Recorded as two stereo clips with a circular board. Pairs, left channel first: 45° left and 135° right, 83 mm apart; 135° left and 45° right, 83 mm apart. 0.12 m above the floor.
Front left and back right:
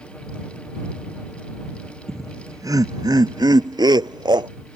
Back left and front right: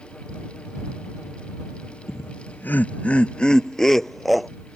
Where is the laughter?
175° right; by 4.5 s 135° right.